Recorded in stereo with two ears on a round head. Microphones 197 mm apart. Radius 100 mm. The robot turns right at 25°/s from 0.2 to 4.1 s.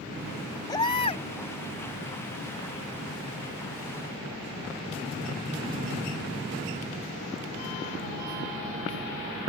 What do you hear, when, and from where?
0.7 s a baby crying: 20° left (ahead or behind); by 1.2 s 30° left (ahead or behind)